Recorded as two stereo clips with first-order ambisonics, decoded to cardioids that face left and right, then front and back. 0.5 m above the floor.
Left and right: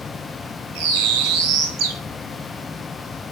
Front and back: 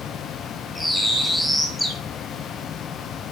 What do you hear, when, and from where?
0.8 s a bird: 85° right, 2 m